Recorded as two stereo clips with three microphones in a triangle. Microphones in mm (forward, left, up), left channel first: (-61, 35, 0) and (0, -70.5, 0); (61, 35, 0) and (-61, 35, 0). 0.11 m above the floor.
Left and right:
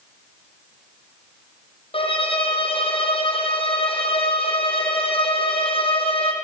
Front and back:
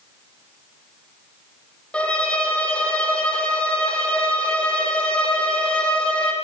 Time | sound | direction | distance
1.9 | a violin | 80° left | 4 m